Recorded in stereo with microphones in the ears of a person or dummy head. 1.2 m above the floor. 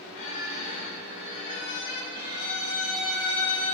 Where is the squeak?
65° left (ahead or behind), 1.9 m.